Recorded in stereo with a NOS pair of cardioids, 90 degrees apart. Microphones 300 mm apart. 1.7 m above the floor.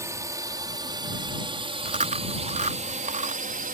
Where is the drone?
10° right; by 3.7 s 30° right.